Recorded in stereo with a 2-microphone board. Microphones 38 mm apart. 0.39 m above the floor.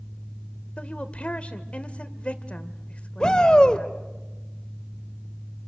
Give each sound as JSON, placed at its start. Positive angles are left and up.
{"t": 0.8, "sound": "a woman speaking", "side_deg": 35, "distance_m": 1.3}
{"t": 3.2, "sound": "a shout", "side_deg": 25, "distance_m": 1.3}